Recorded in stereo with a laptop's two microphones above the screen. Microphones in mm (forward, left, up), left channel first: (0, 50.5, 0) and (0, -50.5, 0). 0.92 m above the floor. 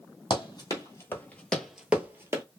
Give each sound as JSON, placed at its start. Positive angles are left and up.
{"t": 0.3, "sound": "running footsteps", "side_deg": 45, "distance_m": 1.3}